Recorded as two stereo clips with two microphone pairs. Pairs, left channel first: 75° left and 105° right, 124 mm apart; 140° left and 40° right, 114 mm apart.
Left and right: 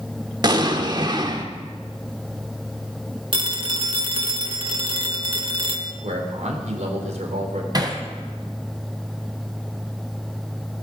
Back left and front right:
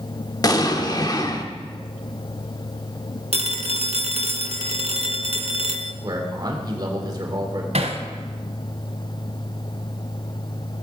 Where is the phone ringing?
60° right, 1.1 m.